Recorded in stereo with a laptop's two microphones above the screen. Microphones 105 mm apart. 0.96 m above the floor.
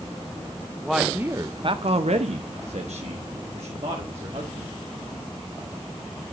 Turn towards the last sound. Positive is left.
turn(degrees=-65)  # may be behind; listen again after turning